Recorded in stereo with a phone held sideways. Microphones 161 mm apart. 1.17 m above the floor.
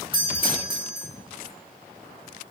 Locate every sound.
0.1 s a doorbell: 30° right (ahead or behind), 4.5 m